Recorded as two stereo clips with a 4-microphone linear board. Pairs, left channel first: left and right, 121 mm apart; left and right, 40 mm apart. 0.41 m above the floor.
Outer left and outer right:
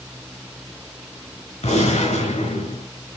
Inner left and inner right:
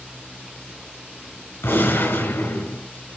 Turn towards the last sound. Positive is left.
turn(degrees=80)